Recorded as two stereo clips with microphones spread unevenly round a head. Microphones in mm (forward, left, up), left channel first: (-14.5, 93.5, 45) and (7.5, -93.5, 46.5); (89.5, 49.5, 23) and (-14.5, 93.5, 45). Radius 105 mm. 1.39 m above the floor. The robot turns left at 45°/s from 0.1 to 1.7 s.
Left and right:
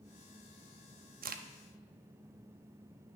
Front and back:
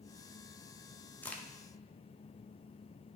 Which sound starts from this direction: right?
A crack, at 1.2 s.